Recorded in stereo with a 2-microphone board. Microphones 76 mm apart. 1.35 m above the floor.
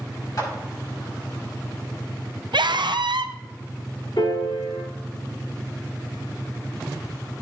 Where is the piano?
80° left, 5.5 m.